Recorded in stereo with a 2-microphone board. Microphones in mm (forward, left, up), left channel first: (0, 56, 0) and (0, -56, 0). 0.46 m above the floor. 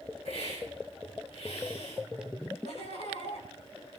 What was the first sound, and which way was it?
A hiss, 70° left (ahead or behind).